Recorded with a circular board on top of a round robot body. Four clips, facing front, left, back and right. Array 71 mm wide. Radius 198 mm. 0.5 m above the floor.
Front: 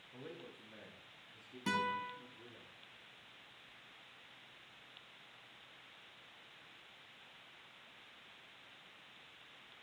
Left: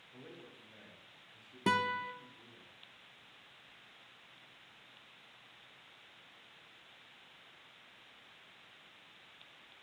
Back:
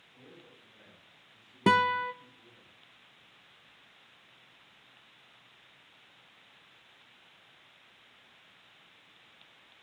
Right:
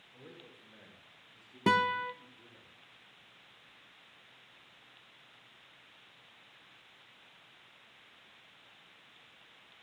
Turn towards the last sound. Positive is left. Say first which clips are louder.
# right 4 dB, back 12 dB
turn(degrees=-165)